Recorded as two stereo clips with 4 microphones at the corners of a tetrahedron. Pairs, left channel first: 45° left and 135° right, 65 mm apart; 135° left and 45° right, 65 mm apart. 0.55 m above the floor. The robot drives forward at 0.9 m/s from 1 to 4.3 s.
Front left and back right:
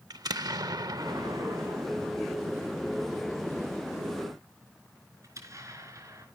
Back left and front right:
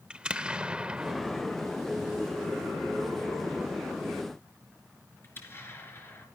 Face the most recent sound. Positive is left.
turn(degrees=-170)